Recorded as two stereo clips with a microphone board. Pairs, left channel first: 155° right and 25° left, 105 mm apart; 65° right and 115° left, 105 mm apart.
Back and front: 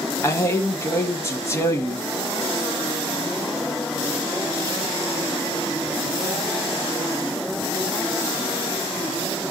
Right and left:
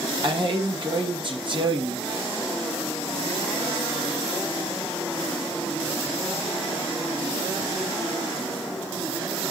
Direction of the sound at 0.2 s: 140° left.